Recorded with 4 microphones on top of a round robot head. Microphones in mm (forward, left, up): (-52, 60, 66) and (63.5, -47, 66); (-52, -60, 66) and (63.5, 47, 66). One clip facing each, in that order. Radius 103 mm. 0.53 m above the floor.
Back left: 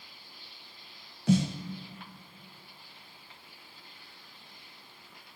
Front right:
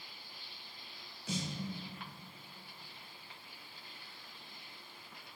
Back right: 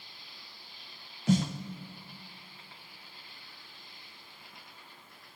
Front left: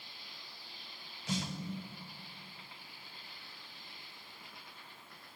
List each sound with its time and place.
1.3 s a snare drum: 175° left, 0.6 m